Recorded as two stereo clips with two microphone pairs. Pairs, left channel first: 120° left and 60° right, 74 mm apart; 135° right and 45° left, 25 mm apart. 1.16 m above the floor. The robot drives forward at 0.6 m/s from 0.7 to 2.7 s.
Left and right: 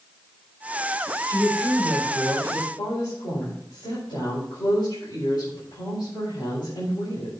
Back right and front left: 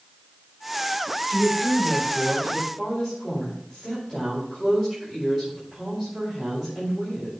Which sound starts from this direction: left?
A woman speaking, at 1.3 s.